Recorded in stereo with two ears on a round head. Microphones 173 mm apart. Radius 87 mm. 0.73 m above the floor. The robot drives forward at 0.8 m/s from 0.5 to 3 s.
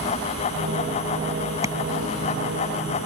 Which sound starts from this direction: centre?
Tapping, at 1.6 s.